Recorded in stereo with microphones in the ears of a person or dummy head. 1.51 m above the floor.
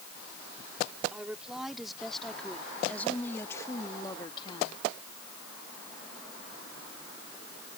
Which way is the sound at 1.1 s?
5° right (ahead or behind).